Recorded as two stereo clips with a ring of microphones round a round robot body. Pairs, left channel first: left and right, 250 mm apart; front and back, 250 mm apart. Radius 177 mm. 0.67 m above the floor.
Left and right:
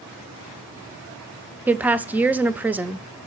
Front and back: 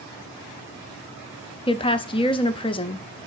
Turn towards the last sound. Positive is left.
turn(degrees=-20)